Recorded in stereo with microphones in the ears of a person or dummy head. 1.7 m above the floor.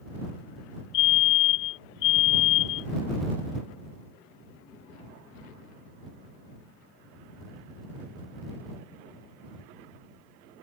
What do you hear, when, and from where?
0.9 s a fire alarm: 65° left (ahead or behind)